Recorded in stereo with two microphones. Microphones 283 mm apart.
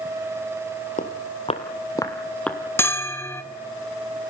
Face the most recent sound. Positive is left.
turn(degrees=10)  # may be behind; listen again after turning